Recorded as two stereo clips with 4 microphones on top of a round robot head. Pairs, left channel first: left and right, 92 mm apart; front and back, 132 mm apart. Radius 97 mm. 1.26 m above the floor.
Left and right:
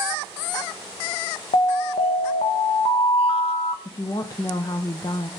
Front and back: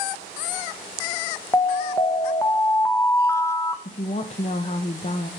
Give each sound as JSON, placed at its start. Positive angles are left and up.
{"t": 1.5, "sound": "an alarm", "azimuth_deg": 70, "distance_m": 0.9}
{"t": 3.9, "sound": "a woman speaking", "azimuth_deg": 40, "distance_m": 1.0}